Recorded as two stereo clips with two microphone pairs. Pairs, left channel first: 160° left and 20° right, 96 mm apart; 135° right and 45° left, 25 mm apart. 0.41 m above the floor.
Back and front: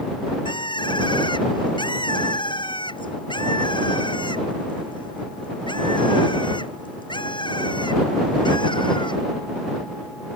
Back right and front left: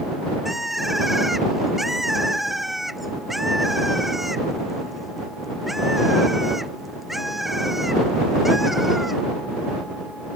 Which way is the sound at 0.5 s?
125° left.